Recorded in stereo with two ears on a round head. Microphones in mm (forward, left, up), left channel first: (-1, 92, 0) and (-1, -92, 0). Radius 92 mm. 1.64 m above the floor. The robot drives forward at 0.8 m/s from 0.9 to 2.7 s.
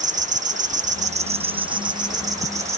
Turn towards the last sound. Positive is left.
turn(degrees=-15)  # may be behind; listen again after turning